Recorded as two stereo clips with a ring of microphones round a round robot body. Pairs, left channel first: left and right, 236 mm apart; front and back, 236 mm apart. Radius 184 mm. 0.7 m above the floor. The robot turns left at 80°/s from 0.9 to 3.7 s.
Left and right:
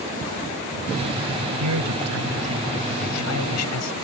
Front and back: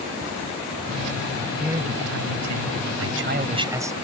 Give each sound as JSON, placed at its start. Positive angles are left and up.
{"t": 1.6, "sound": "a man speaking", "azimuth_deg": -90}